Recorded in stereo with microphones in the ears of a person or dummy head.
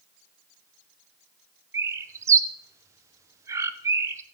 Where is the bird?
15° right (ahead or behind), 0.6 m.